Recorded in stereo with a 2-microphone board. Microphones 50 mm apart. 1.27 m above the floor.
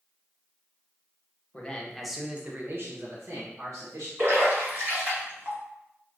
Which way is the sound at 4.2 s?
40° right (ahead or behind).